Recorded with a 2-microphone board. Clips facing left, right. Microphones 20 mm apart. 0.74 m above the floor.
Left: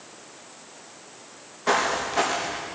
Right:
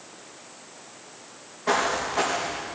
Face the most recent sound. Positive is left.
turn(degrees=50)  # may be behind; listen again after turning